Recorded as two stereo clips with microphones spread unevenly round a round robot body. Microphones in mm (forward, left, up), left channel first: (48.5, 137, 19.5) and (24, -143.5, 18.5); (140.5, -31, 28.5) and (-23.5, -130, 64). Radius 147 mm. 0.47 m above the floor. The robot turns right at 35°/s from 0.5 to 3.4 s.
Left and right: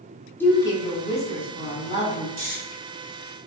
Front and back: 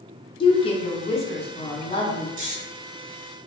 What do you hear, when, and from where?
0.4 s a woman speaking: 5° left, 0.9 m; by 2.3 s 70° left, 0.9 m
2.4 s snoring: 150° right, 1.4 m; by 2.6 s 145° right, 1.4 m